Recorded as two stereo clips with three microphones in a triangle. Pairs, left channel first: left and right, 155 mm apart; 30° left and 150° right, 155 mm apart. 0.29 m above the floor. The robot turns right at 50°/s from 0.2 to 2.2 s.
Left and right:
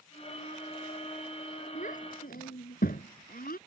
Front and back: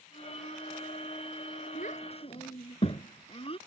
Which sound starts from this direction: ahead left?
A child speaking, at 1.8 s.